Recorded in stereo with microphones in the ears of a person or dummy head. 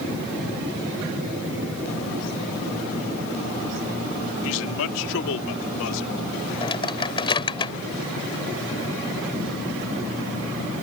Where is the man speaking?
65° left (ahead or behind); by 6.1 s 70° left (ahead or behind).